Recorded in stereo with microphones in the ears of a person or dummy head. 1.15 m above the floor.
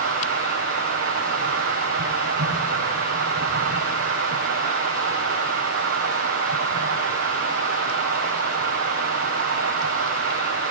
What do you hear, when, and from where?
0.0 s running water: 75° right (ahead or behind), 9 m